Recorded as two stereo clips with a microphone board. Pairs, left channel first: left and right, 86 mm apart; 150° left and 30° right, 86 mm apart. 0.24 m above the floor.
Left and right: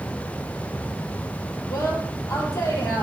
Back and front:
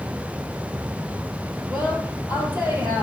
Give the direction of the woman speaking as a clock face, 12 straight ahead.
11 o'clock.